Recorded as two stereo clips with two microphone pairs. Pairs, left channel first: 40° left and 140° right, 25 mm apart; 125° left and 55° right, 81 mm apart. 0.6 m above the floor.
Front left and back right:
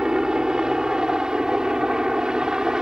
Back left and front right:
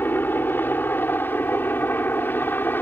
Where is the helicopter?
175° left.